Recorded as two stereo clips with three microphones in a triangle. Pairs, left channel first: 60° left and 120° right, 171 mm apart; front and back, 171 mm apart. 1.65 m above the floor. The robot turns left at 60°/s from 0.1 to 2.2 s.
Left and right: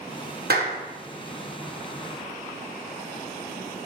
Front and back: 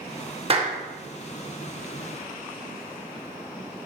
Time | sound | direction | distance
0.5 | a clap | 130° right | 1.3 m